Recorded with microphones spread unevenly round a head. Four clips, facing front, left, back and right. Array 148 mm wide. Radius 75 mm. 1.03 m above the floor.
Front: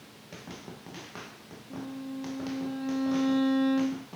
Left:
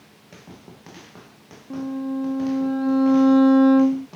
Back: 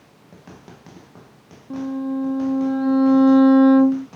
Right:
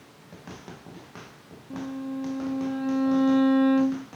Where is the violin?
145° left.